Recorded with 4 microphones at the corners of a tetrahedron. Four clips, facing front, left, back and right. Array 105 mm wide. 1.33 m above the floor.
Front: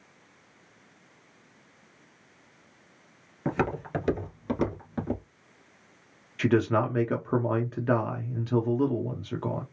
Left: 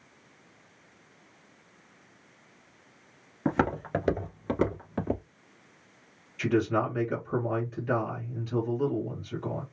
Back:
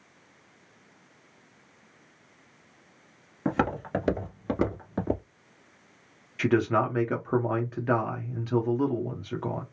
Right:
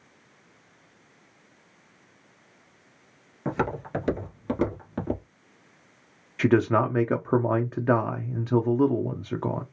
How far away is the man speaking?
About 0.7 m.